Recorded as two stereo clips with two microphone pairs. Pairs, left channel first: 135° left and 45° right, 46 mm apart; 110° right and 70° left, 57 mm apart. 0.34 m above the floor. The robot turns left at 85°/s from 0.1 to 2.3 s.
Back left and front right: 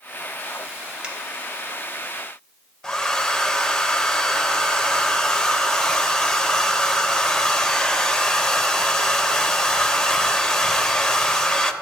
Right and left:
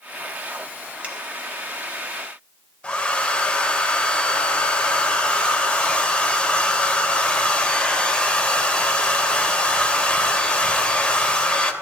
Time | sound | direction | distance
1.0 | a finger snap | 20° left | 1.7 m
2.8 | a hair dryer | 160° right | 0.5 m